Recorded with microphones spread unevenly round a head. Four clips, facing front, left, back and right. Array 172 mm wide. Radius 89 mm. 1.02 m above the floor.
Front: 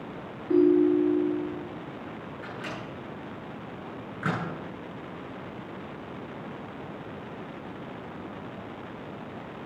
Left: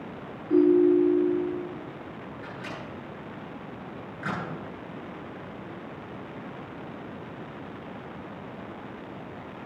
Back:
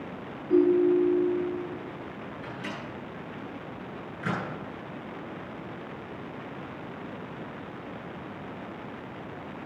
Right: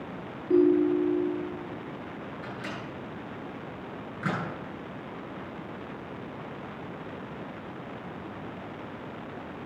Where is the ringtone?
20° right, 7.5 m.